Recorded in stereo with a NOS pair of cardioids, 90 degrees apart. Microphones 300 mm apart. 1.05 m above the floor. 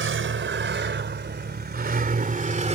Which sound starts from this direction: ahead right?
A vehicle, at 0.0 s.